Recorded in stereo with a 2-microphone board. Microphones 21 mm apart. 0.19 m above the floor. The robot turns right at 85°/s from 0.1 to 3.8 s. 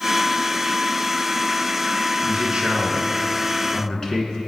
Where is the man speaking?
105° right, 2 m; by 4.4 s 25° left, 2 m.